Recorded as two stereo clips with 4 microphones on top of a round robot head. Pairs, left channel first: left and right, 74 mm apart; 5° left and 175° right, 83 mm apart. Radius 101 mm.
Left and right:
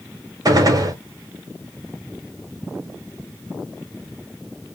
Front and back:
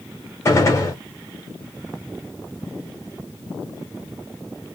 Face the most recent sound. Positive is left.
turn(degrees=-55)